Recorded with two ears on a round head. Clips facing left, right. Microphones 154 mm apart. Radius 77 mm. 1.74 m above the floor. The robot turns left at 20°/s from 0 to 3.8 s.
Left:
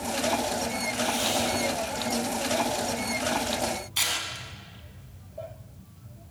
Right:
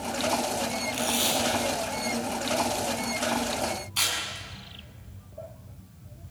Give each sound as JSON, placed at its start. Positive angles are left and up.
{"t": 0.9, "sound": "tape being pulled", "side_deg": -50, "distance_m": 7.5}